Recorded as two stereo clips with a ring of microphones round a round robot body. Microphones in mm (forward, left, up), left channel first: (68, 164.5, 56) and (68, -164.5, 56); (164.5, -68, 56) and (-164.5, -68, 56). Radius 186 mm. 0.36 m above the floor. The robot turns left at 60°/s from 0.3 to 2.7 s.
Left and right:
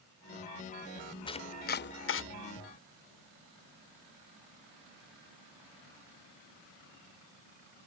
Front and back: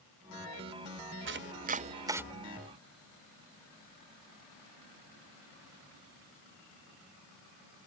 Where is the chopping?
160° left; by 2.2 s 100° left.